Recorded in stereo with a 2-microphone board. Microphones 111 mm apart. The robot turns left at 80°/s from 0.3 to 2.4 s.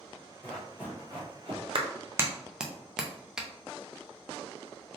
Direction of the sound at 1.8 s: 50° right (ahead or behind).